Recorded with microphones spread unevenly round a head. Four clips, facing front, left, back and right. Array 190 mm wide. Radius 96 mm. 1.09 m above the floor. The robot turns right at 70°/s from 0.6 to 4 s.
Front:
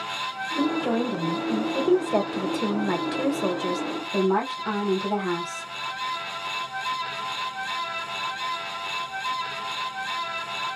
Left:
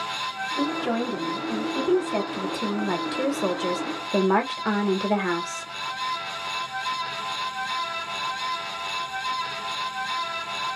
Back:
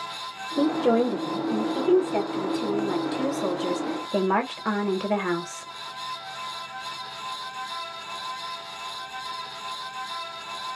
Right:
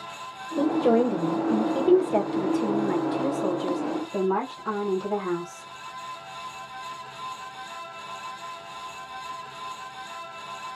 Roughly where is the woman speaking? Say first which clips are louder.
Right 6 dB, back 4 dB; behind right.